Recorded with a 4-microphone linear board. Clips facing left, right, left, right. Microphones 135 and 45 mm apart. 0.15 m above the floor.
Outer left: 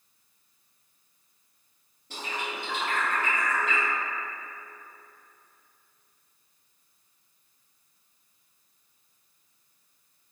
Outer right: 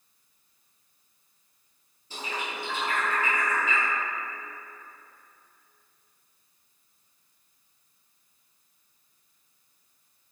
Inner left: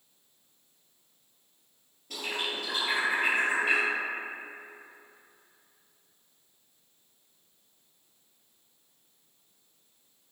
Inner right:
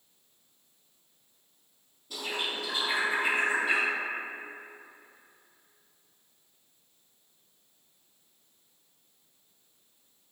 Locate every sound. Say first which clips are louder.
2.1 s a bird: even, even; 65° left (ahead or behind), 1.7 m